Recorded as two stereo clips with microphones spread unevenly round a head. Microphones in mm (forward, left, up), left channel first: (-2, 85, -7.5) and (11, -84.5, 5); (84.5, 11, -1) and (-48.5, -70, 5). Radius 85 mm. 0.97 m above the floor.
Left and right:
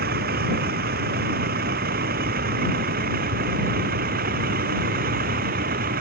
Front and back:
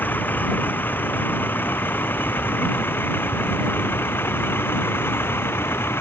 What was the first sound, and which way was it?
A vehicle, 50° right.